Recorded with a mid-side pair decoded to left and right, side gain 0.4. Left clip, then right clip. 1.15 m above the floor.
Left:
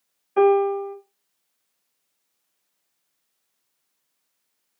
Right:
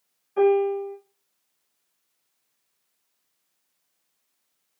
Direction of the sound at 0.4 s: 65° left.